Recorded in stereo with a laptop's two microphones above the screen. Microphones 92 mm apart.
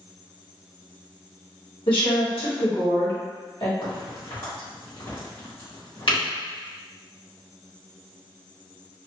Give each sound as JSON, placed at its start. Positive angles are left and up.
{"t": 1.9, "sound": "a woman speaking", "side_deg": 70, "distance_m": 1.7}
{"t": 3.8, "sound": "a crack", "side_deg": 65, "distance_m": 1.5}